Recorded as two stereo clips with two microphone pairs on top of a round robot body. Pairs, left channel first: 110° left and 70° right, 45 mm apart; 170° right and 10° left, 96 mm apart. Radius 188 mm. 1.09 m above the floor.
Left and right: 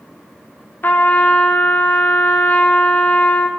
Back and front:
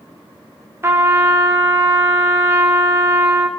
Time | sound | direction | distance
0.8 | a trumpet | 70° left | 4 m